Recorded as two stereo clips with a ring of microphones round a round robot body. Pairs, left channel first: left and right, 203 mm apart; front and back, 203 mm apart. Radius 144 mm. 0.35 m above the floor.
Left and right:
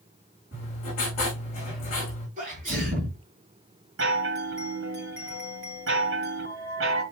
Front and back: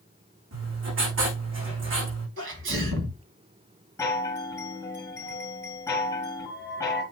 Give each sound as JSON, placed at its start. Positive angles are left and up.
{"t": 0.5, "sound": "writing", "azimuth_deg": 160, "distance_m": 6.5}
{"t": 2.4, "sound": "a sneeze", "azimuth_deg": -150, "distance_m": 2.5}
{"t": 4.0, "sound": "a chime", "azimuth_deg": -80, "distance_m": 4.0}